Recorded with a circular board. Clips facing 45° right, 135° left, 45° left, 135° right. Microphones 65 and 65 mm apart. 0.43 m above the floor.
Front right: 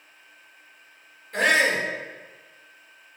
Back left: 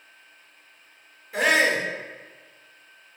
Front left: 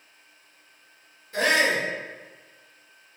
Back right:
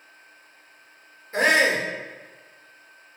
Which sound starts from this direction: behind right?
A shout, at 1.3 s.